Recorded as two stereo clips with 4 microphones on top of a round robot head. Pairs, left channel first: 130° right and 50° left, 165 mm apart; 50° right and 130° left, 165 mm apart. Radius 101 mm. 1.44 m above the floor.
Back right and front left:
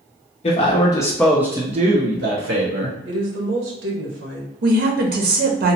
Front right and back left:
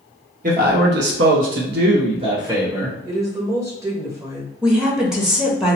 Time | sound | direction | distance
0.4 | a man speaking | 175° left | 0.9 m
3.0 | a woman speaking | 60° left | 0.9 m
4.6 | a woman speaking | 45° left | 0.7 m